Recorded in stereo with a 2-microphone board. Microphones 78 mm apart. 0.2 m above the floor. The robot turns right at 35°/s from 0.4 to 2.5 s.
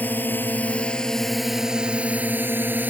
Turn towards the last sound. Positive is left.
turn(degrees=-20)  # may be behind; listen again after turning